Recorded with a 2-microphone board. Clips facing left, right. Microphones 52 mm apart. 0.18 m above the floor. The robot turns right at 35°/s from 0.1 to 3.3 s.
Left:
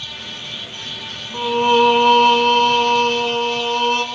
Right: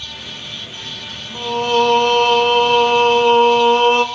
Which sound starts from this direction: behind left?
Singing, at 1.3 s.